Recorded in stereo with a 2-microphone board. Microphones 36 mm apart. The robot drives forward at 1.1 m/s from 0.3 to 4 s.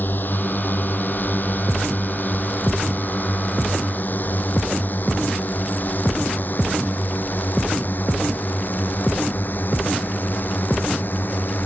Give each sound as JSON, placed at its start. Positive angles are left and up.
{"t": 0.0, "sound": "a drone", "side_deg": 60}